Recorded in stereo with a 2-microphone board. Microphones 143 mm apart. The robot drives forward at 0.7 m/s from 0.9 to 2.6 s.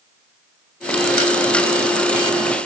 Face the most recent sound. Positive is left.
No sound to turn to.